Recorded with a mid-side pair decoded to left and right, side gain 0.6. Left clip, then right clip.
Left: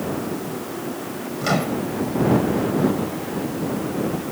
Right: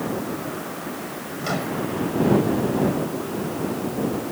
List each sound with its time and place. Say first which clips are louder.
1.4 s a microwave: left 4 dB; 25° left